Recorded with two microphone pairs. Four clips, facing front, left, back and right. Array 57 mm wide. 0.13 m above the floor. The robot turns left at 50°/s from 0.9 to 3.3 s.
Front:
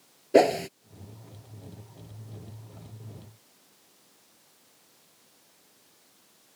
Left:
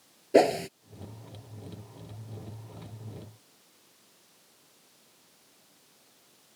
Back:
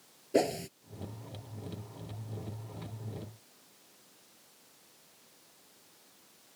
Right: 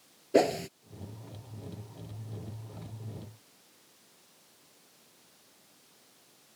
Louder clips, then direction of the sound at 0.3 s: Left 4 dB, front 9 dB; 30° left.